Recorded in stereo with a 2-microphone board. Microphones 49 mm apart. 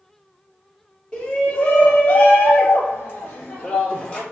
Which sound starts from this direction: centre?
A shout, at 1.1 s.